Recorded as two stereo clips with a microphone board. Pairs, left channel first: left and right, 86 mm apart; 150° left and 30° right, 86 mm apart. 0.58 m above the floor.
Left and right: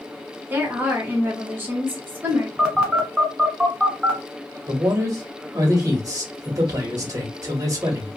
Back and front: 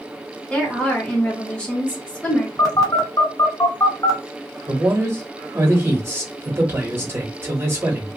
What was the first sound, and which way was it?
A woman speaking, 140° right.